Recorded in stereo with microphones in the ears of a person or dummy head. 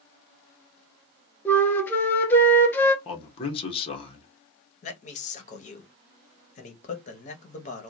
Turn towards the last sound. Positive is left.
turn(degrees=35)  # may be behind; listen again after turning